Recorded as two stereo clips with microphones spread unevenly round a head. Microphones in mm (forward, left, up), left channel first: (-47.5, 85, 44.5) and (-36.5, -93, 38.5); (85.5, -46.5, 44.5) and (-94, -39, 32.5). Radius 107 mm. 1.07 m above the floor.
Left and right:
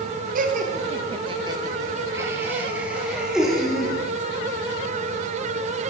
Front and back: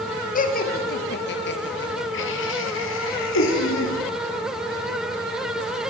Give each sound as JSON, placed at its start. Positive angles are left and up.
{"t": 0.3, "sound": "laughter", "azimuth_deg": -45, "distance_m": 1.3}